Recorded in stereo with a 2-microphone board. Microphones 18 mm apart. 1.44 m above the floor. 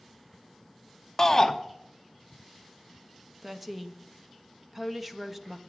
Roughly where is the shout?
Centre.